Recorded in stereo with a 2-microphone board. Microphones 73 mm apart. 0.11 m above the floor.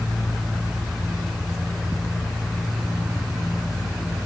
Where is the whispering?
I don't hear whispering.